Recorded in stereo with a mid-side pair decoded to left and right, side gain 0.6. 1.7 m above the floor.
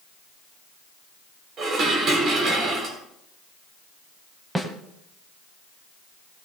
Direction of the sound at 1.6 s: 45° right.